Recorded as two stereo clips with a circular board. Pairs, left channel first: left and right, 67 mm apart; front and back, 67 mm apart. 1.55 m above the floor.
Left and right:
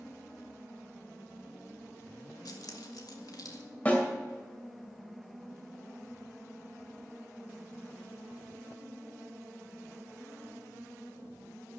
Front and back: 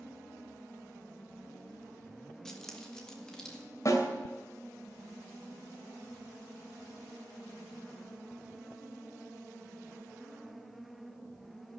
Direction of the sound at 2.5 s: 80° left.